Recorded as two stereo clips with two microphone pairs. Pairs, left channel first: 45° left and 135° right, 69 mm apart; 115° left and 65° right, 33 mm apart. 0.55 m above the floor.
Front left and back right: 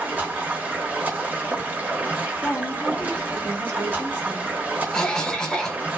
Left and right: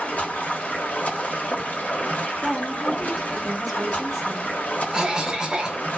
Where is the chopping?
No chopping in this recording.